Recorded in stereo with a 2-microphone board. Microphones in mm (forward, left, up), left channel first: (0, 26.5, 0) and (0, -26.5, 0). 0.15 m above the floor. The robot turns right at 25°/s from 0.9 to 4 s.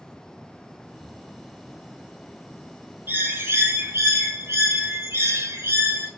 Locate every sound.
3.1 s a bird: 45° right (ahead or behind), 1.4 m; by 6.1 s 65° right (ahead or behind), 1.4 m